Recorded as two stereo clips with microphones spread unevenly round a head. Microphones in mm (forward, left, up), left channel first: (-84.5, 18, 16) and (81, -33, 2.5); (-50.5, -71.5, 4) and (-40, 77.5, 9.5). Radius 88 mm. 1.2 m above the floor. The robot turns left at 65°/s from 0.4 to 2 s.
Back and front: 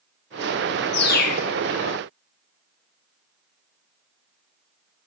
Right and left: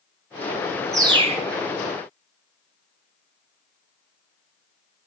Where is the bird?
155° left, 1.5 m; by 1.5 s 120° left, 1.5 m.